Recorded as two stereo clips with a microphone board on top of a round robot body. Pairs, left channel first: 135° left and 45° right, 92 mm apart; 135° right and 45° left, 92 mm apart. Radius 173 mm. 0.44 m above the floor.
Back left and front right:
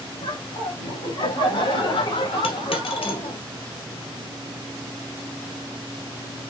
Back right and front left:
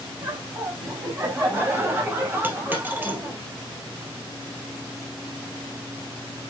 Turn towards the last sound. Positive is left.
turn(degrees=115)